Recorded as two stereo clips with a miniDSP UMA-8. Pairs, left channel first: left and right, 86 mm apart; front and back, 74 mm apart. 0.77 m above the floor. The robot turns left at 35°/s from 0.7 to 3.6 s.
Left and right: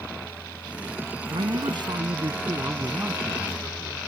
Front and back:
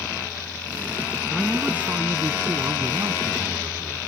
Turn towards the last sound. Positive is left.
turn(degrees=180)